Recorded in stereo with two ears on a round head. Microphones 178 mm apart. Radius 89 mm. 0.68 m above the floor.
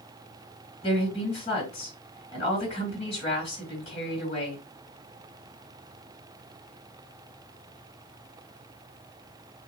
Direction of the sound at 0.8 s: 35° left (ahead or behind).